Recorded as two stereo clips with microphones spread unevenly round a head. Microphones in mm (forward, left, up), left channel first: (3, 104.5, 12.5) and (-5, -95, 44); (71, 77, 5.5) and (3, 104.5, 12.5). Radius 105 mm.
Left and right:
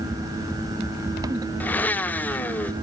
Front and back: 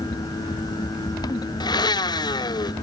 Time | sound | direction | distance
1.6 | a blender | 5° left | 0.9 m